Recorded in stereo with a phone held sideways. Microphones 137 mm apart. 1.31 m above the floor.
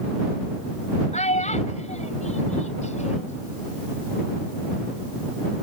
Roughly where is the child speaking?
Left.